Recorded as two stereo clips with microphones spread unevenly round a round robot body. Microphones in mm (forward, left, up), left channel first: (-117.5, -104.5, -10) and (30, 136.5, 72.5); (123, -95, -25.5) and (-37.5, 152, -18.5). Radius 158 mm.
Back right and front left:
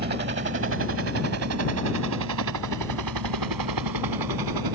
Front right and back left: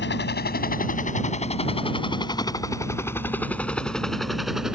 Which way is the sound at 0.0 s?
5° right.